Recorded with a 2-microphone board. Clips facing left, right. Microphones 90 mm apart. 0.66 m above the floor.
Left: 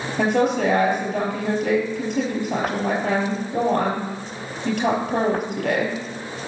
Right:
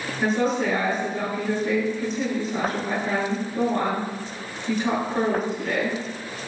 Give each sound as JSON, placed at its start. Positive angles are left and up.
{"t": 0.2, "sound": "a woman speaking", "side_deg": 75, "distance_m": 4.5}